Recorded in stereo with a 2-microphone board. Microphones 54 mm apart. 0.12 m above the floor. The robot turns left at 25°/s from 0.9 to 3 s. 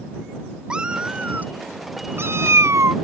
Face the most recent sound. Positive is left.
turn(degrees=-70)